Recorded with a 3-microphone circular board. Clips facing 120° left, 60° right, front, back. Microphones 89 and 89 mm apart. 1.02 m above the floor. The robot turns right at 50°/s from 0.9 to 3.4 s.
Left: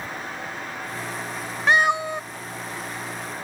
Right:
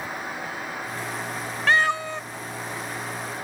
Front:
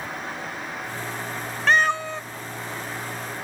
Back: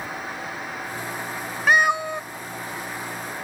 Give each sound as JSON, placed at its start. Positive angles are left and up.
{"t": 1.7, "sound": "a cat meowing", "azimuth_deg": 125}